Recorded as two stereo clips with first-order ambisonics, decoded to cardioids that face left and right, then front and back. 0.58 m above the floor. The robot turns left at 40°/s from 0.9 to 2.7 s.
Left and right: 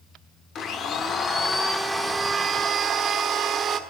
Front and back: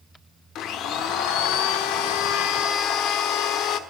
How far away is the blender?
About 1.4 m.